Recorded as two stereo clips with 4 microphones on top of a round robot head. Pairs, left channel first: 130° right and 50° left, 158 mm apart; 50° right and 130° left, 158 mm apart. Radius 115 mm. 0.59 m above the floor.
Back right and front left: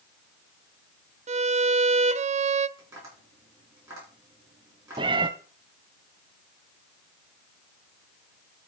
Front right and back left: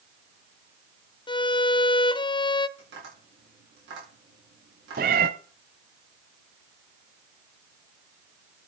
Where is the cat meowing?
110° left, 0.5 m.